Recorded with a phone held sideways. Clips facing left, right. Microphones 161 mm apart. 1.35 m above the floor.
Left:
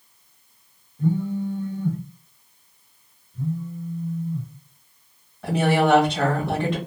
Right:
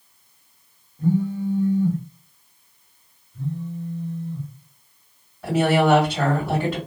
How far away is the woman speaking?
About 2 m.